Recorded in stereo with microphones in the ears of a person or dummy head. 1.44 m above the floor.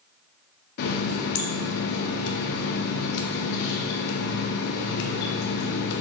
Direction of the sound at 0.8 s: 60° left (ahead or behind).